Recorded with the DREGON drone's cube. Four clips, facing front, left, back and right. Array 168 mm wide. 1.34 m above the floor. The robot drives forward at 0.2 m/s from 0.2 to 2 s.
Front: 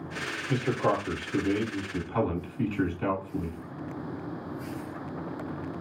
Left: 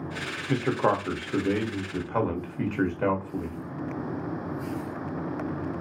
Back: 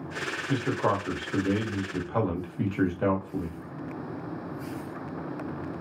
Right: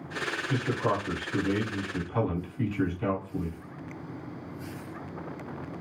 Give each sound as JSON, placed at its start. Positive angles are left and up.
{"t": 0.5, "sound": "a man speaking", "azimuth_deg": 105, "distance_m": 0.8}